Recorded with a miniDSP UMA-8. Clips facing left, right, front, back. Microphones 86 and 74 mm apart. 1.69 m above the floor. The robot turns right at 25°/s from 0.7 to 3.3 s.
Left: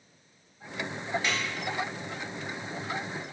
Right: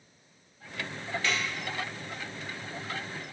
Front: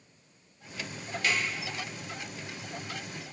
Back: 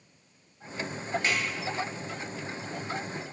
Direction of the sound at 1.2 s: 150° left.